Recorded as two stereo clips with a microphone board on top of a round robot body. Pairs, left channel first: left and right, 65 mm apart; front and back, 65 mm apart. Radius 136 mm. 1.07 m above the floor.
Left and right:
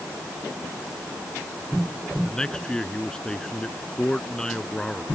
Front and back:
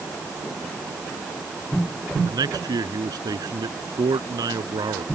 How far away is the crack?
I don't hear a crack.